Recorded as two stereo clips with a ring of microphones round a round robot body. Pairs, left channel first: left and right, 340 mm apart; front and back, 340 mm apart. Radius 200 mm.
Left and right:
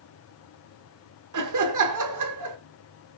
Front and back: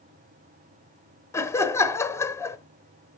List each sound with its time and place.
1.3 s laughter: 80° right, 1.5 m